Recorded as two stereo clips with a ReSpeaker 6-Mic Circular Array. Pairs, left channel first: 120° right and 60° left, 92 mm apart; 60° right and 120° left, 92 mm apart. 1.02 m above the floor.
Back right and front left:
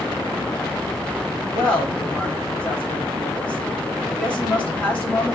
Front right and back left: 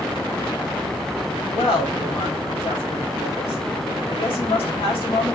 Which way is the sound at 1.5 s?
45° right.